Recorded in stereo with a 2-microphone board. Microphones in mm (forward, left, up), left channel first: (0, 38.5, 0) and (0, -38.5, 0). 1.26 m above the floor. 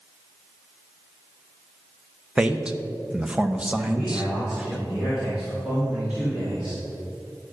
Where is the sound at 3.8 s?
20° right (ahead or behind), 3.5 m.